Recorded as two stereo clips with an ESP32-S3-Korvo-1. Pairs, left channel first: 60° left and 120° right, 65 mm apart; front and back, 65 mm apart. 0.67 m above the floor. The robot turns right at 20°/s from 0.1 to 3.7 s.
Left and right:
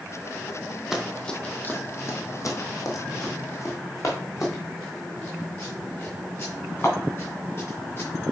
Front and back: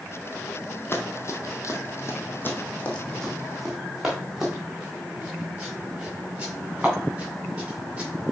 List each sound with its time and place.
0.9 s running footsteps: 35° right, 0.9 m; by 8.1 s 110° left, 4 m